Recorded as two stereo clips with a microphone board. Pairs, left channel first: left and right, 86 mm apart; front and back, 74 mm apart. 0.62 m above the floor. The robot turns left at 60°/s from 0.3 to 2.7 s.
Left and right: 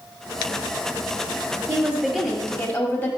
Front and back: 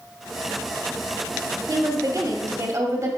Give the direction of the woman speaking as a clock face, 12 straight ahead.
5 o'clock.